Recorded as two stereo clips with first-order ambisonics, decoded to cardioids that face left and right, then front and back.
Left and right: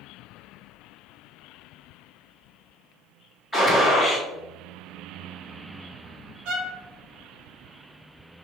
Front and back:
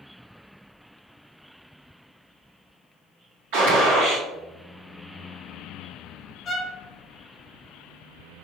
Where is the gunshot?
Straight behind, 1.5 m.